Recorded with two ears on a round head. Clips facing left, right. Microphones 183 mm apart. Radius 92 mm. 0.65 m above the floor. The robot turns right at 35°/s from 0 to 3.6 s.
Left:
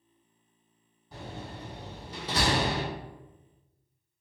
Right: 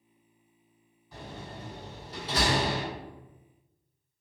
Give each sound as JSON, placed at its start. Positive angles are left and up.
{"t": 1.1, "sound": "a door slam", "side_deg": 35, "distance_m": 1.7}